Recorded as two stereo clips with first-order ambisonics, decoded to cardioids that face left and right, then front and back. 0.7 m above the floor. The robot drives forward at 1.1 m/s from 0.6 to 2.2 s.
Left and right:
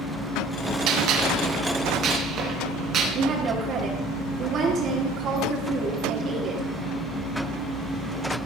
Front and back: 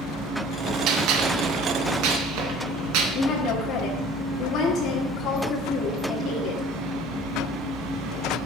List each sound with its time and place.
0.9 s a gunshot: 125° right, 2 m; by 3.0 s 150° right, 3.5 m
3.1 s a woman speaking: 40° right, 1.9 m